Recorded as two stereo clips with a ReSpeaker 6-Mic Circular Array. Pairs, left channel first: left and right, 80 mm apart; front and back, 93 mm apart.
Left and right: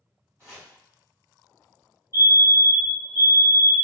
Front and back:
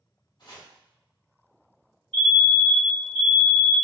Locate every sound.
0.4 s chopping: 40° right, 1.7 m
2.1 s a fire alarm: 75° right, 1.8 m